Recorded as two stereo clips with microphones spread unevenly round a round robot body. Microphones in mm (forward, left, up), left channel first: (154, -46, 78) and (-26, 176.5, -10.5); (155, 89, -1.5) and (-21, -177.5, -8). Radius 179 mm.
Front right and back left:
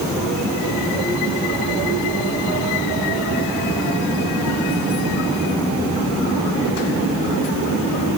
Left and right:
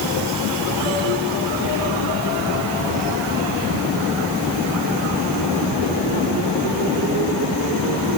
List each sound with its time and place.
Only background noise.